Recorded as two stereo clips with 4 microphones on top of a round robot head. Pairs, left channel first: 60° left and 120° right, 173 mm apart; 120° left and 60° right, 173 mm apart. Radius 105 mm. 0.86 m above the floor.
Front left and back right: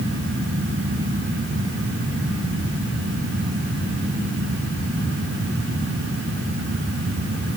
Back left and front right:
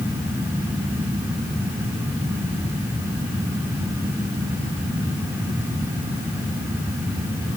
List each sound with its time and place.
Only background noise.